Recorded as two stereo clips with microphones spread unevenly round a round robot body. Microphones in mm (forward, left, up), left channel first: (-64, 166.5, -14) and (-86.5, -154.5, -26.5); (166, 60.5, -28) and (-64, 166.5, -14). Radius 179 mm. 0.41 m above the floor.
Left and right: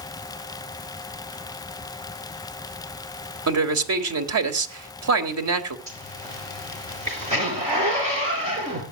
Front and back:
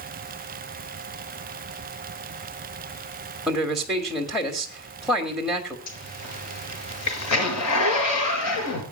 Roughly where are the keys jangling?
No keys jangling in this recording.